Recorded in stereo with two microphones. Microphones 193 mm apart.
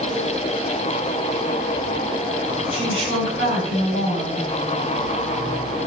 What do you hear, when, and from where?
2.7 s a woman speaking: 65° left (ahead or behind), 6 m